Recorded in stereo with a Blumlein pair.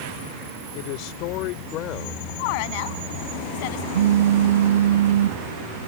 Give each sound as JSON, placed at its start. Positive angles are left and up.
{"t": 0.8, "sound": "a man speaking", "azimuth_deg": 45}
{"t": 2.4, "sound": "a woman speaking", "azimuth_deg": 45}
{"t": 3.9, "sound": "a phone buzzing", "azimuth_deg": -60}